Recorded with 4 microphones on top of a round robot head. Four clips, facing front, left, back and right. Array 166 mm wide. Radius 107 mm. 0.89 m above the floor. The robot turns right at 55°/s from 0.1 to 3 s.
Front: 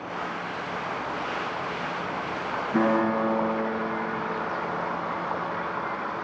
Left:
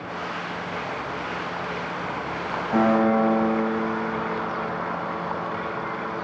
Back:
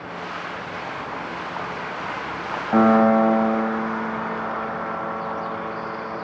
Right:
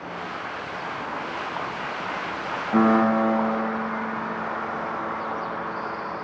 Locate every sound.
2.7 s a piano: 165° left, 5.5 m; by 6.2 s straight behind, 5.5 m